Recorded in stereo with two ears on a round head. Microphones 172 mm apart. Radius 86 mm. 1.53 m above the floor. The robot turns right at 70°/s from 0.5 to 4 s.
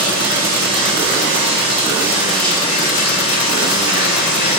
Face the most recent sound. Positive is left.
turn(degrees=115)